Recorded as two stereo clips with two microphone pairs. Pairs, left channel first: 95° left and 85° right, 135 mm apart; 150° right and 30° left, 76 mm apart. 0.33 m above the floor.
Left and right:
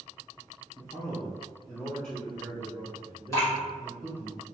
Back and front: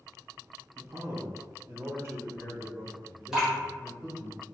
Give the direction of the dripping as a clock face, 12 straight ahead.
9 o'clock.